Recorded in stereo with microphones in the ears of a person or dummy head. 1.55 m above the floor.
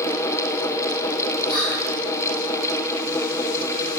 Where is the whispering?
75° left (ahead or behind), 0.8 m.